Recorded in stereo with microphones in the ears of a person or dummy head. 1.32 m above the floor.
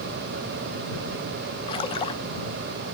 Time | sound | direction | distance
1.7 | a splash | 25° left (ahead or behind) | ?